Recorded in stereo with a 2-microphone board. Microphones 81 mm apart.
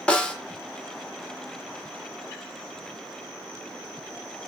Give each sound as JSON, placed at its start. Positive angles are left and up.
{"t": 0.1, "sound": "a snare drum", "side_deg": 15, "distance_m": 0.5}